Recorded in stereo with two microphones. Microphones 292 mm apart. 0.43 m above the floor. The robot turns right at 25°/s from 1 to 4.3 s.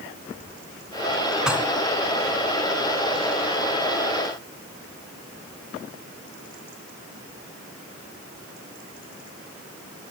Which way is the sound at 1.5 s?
Centre (ahead or behind).